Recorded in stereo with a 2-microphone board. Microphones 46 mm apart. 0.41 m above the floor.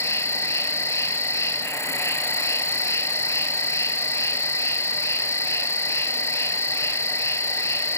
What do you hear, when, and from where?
0.0 s an insect: 80° left, 1.2 m